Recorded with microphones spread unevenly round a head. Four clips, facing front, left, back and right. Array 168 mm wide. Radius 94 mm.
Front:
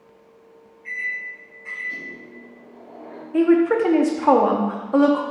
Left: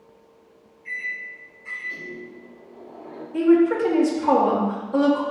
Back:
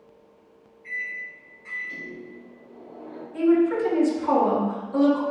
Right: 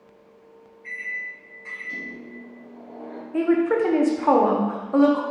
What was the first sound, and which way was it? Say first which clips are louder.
A microwave: left 1 dB, front 4 dB; 85° right.